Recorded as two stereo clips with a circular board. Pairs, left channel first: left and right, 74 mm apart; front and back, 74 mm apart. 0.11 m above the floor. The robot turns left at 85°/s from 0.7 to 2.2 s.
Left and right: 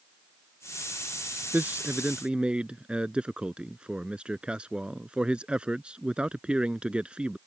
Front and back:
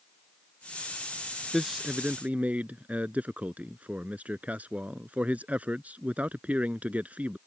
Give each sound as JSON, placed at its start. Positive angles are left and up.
{"t": 1.5, "sound": "a man speaking", "azimuth_deg": -85}